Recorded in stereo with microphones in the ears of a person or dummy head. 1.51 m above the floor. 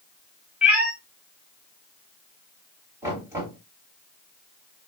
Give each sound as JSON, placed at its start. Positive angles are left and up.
{"t": 0.6, "sound": "a cat meowing", "side_deg": -5, "distance_m": 2.5}
{"t": 3.0, "sound": "knocking", "side_deg": -15, "distance_m": 3.5}